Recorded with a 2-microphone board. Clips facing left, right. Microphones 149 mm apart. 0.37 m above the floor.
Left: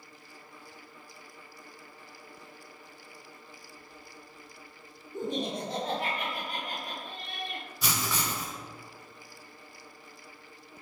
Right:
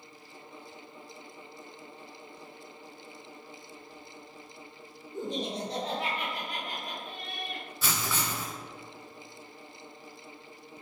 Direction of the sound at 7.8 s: 15° left (ahead or behind).